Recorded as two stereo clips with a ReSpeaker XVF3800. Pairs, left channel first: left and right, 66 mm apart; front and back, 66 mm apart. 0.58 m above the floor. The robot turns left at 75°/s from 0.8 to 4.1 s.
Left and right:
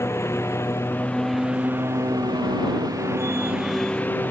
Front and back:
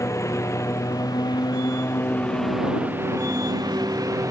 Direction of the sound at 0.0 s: 40° left.